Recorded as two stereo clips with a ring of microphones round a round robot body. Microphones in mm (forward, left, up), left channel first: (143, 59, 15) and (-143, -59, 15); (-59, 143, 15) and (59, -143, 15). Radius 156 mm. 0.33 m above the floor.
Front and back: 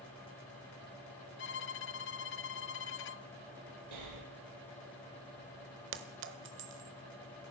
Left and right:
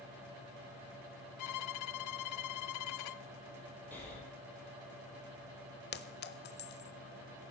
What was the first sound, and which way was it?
A violin, 80° left.